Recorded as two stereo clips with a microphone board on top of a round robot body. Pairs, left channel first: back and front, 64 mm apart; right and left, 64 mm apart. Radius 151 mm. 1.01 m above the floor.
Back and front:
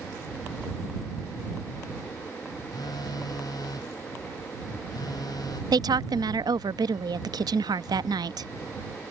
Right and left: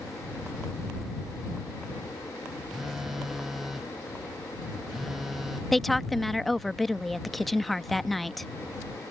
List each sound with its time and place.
2.7 s a phone buzzing: 175° left
5.7 s a woman speaking: straight ahead